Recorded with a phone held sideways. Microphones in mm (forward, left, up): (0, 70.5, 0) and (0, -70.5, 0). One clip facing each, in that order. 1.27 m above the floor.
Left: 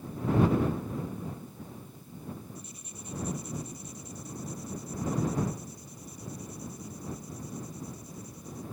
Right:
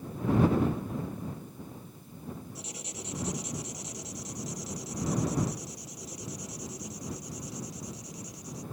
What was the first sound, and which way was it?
Writing, 70° right (ahead or behind).